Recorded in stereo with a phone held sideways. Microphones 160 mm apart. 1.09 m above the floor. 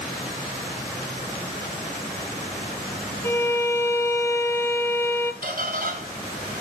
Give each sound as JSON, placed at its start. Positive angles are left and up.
{"t": 3.2, "sound": "a violin", "side_deg": 15, "distance_m": 0.7}
{"t": 5.4, "sound": "a squeak", "side_deg": -70, "distance_m": 2.5}